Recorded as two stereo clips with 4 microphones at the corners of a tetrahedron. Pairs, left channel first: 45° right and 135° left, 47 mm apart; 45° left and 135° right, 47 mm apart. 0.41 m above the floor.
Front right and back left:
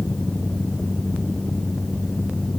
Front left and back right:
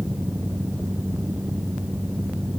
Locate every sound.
Only background noise.